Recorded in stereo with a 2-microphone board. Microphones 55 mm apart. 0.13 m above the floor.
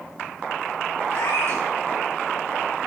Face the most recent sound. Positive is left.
turn(degrees=60)  # may be behind; listen again after turning